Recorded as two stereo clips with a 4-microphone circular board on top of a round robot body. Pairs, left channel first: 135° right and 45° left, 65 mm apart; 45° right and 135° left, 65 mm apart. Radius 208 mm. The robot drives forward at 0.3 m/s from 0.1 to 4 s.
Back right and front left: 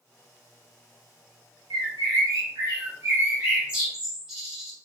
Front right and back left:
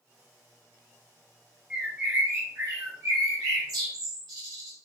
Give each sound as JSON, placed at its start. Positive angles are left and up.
{"t": 1.7, "sound": "a bird", "azimuth_deg": 55, "distance_m": 0.6}